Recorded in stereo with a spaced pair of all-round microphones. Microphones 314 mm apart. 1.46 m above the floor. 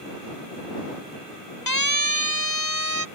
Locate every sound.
1.7 s a siren: 85° left; by 3.0 s 80° left